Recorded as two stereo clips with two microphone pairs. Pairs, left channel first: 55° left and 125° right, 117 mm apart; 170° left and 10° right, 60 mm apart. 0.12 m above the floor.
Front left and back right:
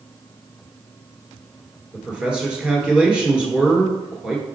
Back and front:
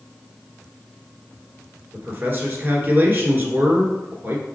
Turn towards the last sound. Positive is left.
turn(degrees=-50)